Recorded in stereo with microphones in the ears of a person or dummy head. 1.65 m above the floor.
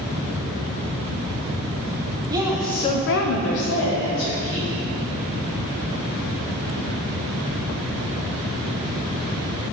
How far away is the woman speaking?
About 0.9 m.